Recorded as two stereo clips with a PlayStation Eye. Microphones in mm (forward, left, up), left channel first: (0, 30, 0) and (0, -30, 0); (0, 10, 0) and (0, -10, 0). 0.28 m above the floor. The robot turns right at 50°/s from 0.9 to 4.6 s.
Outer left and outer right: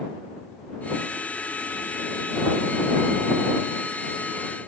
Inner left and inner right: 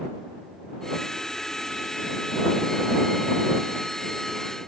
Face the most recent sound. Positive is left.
No sound to turn to.